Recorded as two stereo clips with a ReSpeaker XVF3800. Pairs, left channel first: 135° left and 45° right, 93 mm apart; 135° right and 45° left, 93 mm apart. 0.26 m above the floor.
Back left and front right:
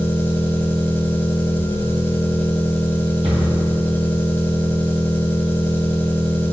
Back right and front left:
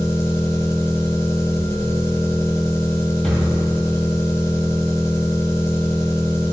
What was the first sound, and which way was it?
An engine running, 170° right.